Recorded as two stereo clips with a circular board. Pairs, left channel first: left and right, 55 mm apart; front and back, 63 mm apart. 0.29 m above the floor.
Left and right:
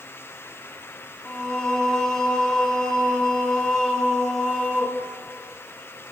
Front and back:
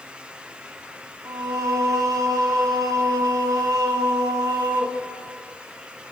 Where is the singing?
170° left, 2 m.